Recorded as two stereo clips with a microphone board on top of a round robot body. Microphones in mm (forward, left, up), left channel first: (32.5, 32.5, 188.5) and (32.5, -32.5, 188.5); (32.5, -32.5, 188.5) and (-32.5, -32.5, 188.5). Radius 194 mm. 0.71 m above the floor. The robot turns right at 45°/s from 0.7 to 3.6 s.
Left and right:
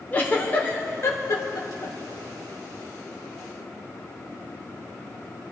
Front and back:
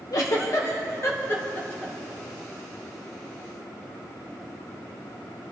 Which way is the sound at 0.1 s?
25° left.